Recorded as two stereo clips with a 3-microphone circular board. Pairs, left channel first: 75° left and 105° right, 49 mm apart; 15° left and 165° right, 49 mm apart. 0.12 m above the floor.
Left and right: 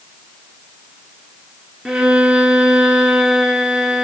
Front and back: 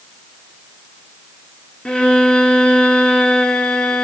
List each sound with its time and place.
1.9 s a violin: 30° right, 1.5 m